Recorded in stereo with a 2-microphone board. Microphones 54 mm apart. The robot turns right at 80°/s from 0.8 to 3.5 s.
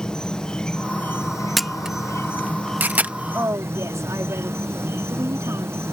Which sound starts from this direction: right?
A woman speaking, at 3.3 s.